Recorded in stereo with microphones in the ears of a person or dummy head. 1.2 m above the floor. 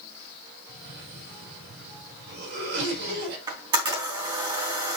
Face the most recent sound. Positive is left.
turn(degrees=-20)  # may be behind; listen again after turning